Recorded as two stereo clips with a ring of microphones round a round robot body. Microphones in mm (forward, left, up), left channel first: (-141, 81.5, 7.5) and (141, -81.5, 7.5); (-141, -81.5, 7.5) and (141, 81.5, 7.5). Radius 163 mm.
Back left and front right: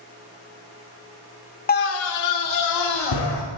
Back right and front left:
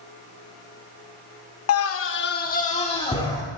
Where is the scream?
160° right, 0.9 m; by 3.4 s 135° left, 2 m.